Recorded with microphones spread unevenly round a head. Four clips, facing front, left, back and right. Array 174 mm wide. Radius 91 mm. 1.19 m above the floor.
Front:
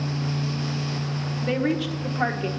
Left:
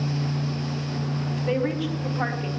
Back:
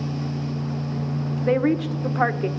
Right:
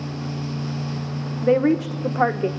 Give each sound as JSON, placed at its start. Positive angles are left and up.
{"t": 1.4, "sound": "a woman speaking", "azimuth_deg": -95, "distance_m": 0.9}